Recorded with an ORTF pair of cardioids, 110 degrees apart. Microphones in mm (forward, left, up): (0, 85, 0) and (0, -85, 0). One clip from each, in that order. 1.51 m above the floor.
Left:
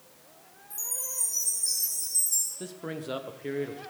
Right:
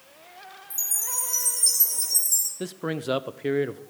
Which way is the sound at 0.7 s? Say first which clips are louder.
Right 6 dB; 50° right.